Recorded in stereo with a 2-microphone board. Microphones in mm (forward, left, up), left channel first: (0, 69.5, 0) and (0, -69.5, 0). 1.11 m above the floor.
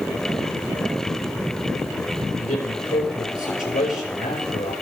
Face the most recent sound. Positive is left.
turn(degrees=80)